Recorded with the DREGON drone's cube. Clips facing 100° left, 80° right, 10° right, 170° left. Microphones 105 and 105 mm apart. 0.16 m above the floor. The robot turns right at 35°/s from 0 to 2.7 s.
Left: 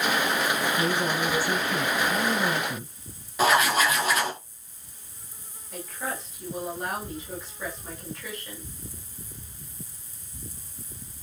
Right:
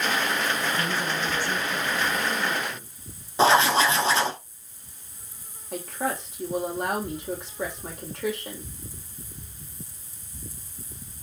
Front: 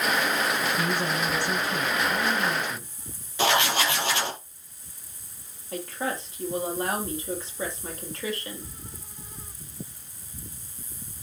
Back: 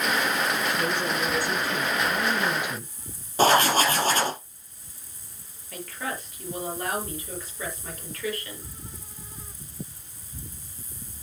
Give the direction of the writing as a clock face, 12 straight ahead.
5 o'clock.